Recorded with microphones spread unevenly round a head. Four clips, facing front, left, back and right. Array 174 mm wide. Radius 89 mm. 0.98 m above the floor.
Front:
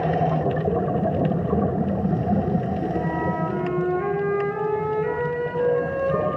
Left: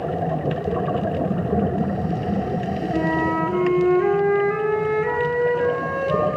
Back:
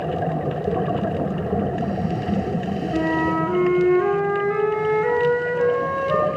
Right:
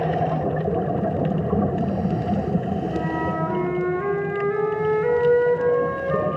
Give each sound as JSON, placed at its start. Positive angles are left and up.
{"t": 2.9, "sound": "a flute", "azimuth_deg": -165, "distance_m": 7.0}